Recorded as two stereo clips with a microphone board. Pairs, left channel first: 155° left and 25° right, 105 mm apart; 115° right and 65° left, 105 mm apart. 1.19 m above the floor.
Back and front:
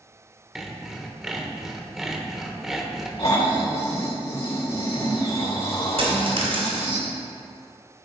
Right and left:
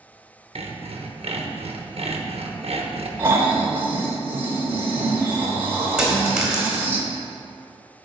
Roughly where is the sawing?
Ahead left.